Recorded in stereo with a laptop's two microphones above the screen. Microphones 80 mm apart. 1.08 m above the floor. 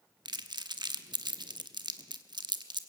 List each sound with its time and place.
0.2 s crumpling: 65° right (ahead or behind), 1.0 m